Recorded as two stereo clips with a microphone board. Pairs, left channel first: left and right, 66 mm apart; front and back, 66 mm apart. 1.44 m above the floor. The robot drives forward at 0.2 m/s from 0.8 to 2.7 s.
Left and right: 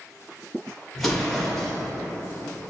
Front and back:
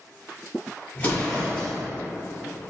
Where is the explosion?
5° left, 1.0 m.